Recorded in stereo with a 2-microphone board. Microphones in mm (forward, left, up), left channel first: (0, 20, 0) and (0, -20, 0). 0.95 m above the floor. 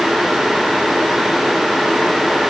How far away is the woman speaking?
I don't hear a woman speaking.